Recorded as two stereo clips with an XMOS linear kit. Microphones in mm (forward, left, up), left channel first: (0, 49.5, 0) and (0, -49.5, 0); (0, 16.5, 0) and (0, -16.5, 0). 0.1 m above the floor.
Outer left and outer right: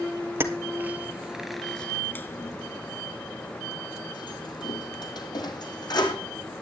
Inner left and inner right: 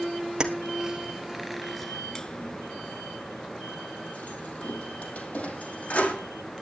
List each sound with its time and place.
0.4 s keys jangling: 25° right (ahead or behind), 1.4 m; by 6.2 s 45° left (ahead or behind), 3 m